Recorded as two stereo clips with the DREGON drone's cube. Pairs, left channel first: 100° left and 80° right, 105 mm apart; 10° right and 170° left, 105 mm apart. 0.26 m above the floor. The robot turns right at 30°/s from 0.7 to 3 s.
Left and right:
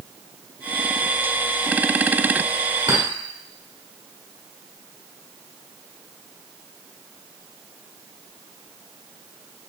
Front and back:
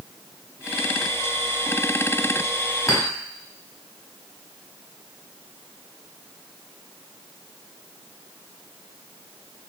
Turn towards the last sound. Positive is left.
turn(degrees=-60)